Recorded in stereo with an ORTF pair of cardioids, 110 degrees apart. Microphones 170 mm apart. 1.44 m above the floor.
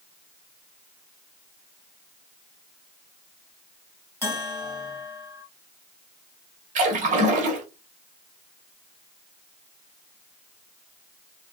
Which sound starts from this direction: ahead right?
A splash, at 6.8 s.